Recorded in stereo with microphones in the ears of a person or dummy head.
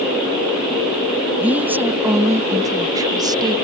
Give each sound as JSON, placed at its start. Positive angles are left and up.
{"t": 1.4, "sound": "a woman speaking", "side_deg": -5}